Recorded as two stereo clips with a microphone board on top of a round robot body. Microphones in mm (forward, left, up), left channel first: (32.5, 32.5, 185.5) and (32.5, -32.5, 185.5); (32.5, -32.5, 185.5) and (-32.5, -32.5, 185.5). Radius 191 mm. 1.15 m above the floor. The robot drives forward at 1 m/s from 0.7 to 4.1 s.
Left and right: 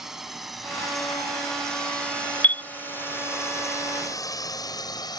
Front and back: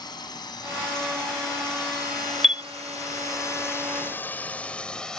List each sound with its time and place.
0.0 s a drone: 5° right; by 5.2 s 80° left
2.4 s a chime: 100° left; by 2.6 s 140° left